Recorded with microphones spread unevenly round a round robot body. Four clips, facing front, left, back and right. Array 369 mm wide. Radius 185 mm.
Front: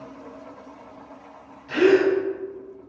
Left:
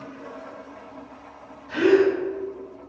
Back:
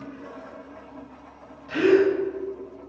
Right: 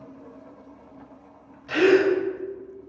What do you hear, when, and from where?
1.7 s a gasp: 95° right, 1.4 m